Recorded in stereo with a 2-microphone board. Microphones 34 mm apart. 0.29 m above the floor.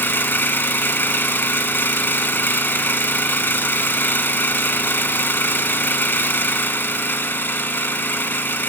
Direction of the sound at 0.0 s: 75° left (ahead or behind).